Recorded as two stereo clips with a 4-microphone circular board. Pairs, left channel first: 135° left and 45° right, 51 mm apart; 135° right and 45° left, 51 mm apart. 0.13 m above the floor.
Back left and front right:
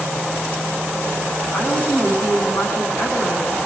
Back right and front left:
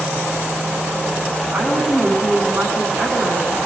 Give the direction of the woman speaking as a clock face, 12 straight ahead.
9 o'clock.